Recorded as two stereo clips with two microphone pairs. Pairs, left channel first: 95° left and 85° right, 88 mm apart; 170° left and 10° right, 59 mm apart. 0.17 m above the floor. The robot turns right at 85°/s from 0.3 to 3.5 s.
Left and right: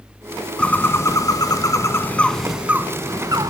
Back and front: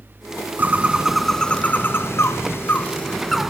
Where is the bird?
25° left, 0.8 m; by 3.5 s 90° right, 0.8 m.